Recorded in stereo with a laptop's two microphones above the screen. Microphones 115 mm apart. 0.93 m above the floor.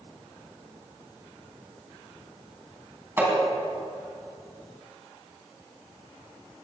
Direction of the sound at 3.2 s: 20° right (ahead or behind).